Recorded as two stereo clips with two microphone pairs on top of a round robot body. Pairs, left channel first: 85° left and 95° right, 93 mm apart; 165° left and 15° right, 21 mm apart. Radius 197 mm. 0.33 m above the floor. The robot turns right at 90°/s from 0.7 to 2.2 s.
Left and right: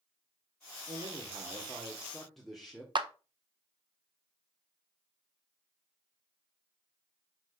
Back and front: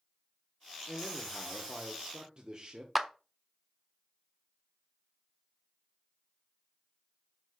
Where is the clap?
85° right, 1.4 m.